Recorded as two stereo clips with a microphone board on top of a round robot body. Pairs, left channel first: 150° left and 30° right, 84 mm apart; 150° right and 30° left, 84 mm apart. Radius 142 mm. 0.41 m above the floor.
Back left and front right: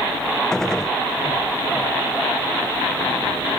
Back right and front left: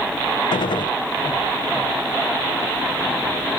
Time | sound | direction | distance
0.5 | a gunshot | 125° right | ?